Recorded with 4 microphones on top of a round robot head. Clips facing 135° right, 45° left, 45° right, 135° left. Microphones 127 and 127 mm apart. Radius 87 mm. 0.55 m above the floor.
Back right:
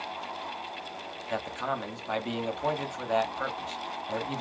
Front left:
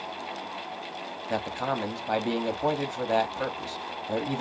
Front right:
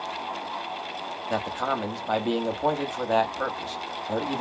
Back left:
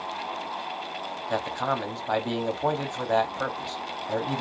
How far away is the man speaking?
About 0.9 m.